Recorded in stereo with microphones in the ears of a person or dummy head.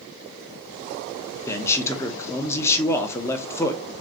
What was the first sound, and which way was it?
A man speaking, 15° left (ahead or behind).